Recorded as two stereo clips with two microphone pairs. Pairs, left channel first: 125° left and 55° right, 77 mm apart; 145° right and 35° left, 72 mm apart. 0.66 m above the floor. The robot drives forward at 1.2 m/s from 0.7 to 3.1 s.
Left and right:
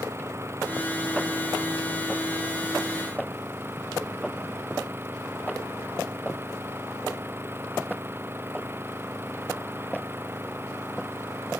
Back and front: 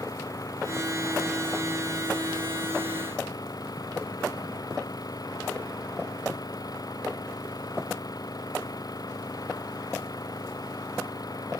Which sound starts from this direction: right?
An engine running, at 0.0 s.